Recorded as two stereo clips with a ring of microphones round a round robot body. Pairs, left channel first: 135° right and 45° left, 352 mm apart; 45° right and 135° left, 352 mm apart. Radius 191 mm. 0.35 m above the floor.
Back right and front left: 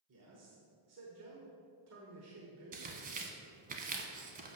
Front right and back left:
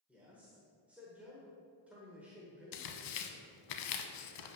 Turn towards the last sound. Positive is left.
turn(degrees=-25)